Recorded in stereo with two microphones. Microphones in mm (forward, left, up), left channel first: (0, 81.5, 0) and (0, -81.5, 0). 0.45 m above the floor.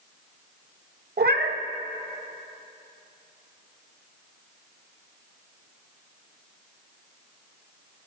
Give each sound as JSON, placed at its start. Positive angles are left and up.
{"t": 1.2, "sound": "a cat meowing", "side_deg": -80, "distance_m": 0.6}